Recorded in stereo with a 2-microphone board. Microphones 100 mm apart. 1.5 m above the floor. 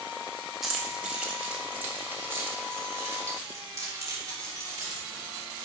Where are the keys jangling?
5° right (ahead or behind), 1.4 m; by 5.7 s 40° right (ahead or behind), 4 m.